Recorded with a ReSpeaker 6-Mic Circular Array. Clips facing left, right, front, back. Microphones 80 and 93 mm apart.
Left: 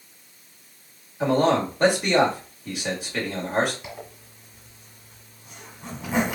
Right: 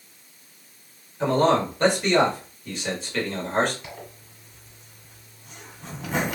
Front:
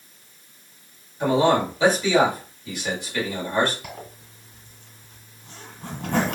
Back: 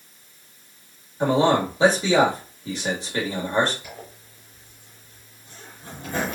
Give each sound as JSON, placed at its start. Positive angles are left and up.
{"t": 1.2, "sound": "a man speaking", "azimuth_deg": 160, "distance_m": 1.7}
{"t": 3.8, "sound": "a zipper", "azimuth_deg": 5, "distance_m": 1.4}